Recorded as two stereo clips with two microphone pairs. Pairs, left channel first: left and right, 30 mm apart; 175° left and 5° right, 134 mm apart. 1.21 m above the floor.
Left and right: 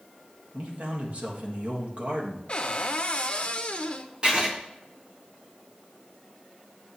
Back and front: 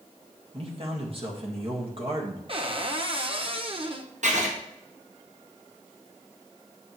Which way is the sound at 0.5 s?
50° right.